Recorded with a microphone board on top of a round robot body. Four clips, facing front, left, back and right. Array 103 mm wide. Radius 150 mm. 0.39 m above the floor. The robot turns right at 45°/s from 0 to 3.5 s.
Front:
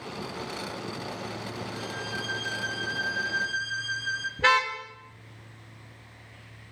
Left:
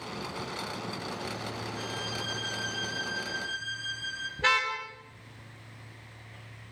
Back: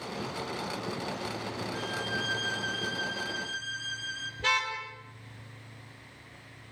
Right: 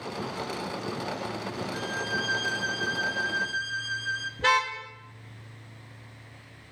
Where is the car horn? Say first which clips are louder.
Right 3 dB, front 7 dB; 15° left, 5.5 m.